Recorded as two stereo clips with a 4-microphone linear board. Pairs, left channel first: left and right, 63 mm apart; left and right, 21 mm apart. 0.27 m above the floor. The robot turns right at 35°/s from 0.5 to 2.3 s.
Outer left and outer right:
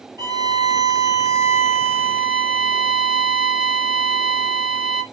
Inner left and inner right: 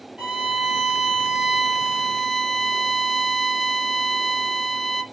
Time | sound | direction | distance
0.2 | a violin | 70° right | 2 m